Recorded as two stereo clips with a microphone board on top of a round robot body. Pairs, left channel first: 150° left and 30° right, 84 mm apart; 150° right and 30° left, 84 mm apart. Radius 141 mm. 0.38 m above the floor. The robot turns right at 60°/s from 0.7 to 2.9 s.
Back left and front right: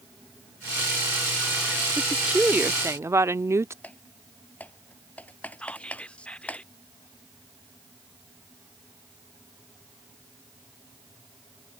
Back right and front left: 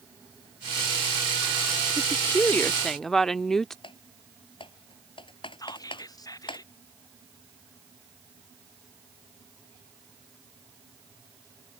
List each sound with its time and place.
2.0 s a woman speaking: 125° right; by 3.7 s 65° right
3.8 s typing on a keyboard: 140° right
5.6 s whispering: 140° right